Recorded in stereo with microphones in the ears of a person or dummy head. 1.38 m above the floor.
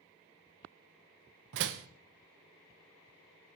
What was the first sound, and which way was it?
A door slam, 55° right (ahead or behind).